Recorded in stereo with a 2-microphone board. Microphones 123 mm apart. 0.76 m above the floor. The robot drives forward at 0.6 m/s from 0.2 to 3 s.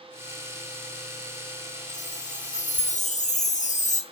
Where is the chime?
80° left, 3 m; by 4.0 s 85° left, 3 m.